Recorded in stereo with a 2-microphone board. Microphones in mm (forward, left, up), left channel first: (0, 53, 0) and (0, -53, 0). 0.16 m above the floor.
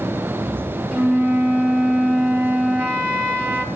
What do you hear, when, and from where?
0.9 s a flute: 10° right (ahead or behind), 0.9 m